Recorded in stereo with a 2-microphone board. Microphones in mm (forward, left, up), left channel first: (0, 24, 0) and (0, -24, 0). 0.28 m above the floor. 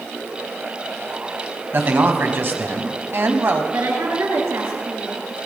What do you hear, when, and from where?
1.7 s a man speaking: 50° right (ahead or behind), 1.8 m
3.7 s a woman speaking: 75° right (ahead or behind), 4 m